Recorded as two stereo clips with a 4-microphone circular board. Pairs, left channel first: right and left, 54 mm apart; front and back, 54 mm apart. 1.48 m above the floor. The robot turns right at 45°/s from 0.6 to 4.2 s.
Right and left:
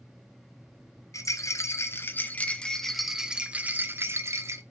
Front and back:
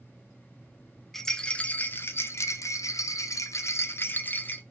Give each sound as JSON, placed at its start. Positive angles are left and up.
{"t": 1.1, "sound": "a rattle", "azimuth_deg": -85, "distance_m": 0.6}